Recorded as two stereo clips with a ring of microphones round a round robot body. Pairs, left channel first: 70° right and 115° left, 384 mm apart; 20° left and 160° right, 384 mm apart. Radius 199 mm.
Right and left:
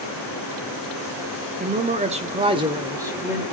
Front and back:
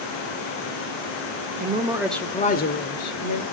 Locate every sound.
1.6 s a man speaking: 160° left, 0.9 m; by 3.4 s 30° left, 1.2 m